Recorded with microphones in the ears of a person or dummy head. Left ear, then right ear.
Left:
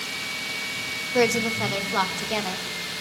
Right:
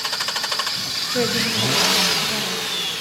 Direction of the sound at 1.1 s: 50° left (ahead or behind).